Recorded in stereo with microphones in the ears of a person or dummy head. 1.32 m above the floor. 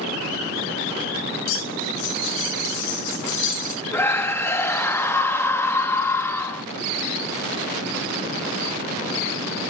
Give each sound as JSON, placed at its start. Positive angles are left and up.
{"t": 1.4, "sound": "cutlery clinking", "side_deg": 70, "distance_m": 4.0}
{"t": 3.9, "sound": "a scream", "side_deg": 10, "distance_m": 1.9}